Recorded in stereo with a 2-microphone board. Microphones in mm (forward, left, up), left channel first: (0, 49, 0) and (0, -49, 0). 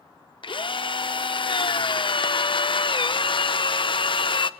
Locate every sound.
0.4 s a drill: 60° left (ahead or behind), 0.8 m